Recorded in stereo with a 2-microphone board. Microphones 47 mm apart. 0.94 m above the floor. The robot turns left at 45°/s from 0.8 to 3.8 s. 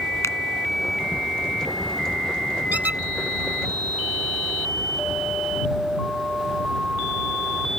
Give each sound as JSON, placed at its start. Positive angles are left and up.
{"t": 0.2, "sound": "a finger snap", "side_deg": 85}
{"t": 2.7, "sound": "a squeak", "side_deg": -35}